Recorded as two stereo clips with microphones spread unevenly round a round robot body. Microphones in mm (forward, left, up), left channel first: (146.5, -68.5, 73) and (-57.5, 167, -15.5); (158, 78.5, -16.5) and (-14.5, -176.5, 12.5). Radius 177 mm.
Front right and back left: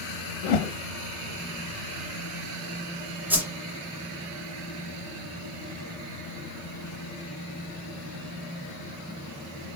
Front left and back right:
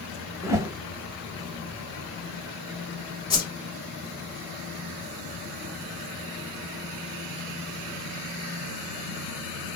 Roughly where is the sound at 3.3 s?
Left.